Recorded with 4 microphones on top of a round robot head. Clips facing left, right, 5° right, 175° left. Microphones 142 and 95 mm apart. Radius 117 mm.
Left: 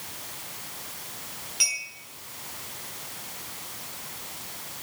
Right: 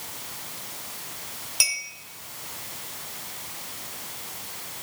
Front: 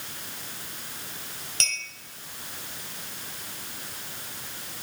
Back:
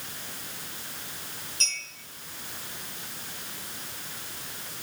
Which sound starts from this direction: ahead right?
A clink, at 1.6 s.